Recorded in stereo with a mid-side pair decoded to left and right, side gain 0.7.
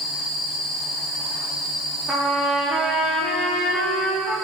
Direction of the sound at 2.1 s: 15° right.